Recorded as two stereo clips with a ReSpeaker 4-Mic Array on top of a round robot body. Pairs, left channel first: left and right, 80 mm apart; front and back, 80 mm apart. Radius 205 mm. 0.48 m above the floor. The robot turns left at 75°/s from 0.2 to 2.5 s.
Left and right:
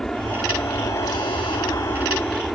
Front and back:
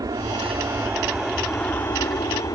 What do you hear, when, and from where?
0.0 s an aircraft: 175° left; by 2.5 s straight ahead